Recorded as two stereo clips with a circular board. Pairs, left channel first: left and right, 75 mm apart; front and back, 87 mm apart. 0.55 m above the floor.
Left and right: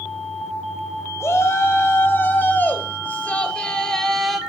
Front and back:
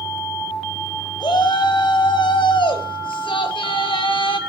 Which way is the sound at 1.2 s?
35° left.